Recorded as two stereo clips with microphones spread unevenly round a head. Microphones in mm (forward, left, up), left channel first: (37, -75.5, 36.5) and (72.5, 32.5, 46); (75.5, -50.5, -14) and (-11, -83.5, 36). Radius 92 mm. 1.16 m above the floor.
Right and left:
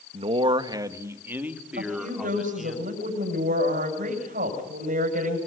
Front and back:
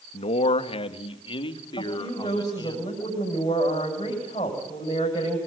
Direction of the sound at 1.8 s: 85° left.